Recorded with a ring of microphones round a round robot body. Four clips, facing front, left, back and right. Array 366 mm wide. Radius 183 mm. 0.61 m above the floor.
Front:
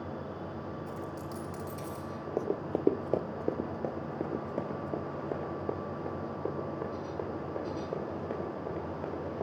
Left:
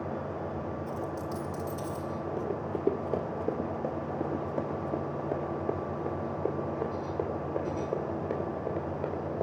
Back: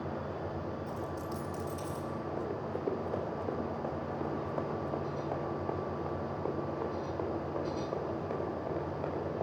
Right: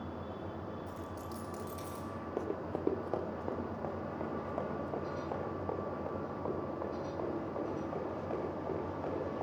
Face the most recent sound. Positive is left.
turn(degrees=50)